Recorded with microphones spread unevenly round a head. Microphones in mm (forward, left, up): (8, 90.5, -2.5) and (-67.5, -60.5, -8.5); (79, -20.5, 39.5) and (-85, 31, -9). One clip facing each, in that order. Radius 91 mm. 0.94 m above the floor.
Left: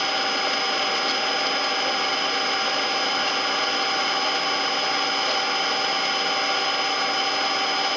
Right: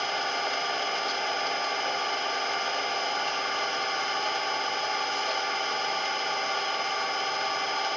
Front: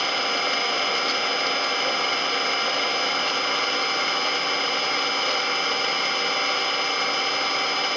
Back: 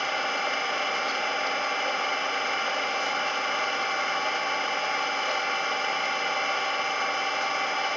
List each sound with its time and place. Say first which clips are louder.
0.0 s an engine running: left 4 dB, front 3 dB; 30° left, 1.5 m